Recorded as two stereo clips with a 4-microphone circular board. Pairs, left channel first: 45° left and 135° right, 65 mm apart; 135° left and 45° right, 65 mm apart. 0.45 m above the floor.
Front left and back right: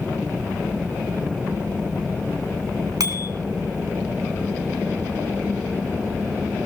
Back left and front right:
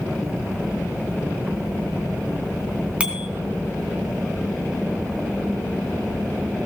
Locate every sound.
3.0 s a bicycle bell: 115° right, 3 m